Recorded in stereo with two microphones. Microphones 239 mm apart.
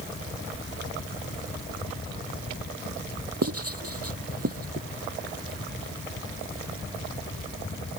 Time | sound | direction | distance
3.4 | writing | 65° right (ahead or behind) | ?